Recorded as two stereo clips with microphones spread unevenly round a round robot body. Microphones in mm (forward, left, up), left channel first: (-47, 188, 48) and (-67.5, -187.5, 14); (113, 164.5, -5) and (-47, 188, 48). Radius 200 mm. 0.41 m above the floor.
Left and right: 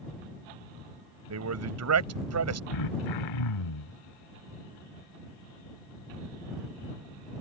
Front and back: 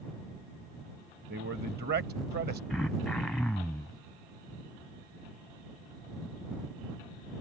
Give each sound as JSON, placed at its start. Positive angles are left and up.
{"t": 1.3, "sound": "a man speaking", "azimuth_deg": -135}
{"t": 2.7, "sound": "throat clearing", "azimuth_deg": 75}